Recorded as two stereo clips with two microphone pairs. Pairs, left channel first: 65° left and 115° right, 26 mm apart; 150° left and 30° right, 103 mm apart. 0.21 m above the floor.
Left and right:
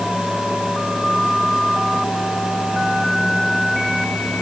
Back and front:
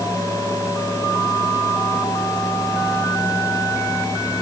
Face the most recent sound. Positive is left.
No sound to turn to.